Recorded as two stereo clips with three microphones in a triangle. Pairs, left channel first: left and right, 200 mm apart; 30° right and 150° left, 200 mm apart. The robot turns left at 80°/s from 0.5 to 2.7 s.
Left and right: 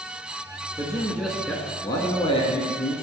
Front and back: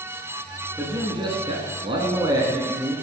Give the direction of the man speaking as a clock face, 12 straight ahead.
4 o'clock.